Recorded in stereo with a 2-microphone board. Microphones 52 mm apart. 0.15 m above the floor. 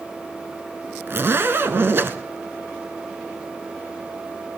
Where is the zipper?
45° right (ahead or behind), 0.7 m.